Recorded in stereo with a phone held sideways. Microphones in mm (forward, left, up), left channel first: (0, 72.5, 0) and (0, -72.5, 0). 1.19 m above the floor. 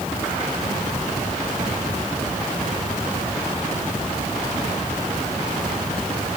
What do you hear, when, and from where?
Only background noise.